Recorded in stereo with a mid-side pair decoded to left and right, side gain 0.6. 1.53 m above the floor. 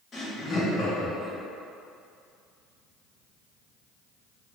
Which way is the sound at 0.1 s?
35° left.